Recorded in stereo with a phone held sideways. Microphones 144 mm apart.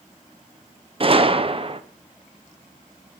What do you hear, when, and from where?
1.0 s a gunshot: 40° right (ahead or behind), 0.6 m